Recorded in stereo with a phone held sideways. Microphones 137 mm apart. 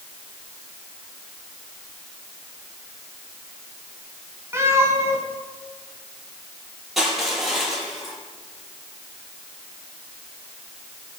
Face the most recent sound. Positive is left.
turn(degrees=0)  # may be behind; listen again after turning